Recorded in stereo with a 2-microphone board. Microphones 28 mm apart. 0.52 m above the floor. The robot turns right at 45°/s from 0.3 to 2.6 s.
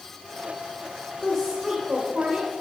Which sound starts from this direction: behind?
A woman speaking, at 1.2 s.